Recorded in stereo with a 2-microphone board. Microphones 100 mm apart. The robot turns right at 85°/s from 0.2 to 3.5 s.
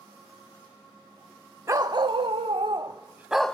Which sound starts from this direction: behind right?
A dog barking, at 1.7 s.